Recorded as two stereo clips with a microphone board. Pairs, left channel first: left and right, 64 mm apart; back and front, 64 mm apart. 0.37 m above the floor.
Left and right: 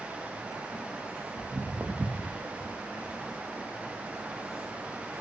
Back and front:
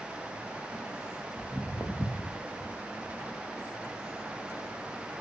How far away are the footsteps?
About 0.8 m.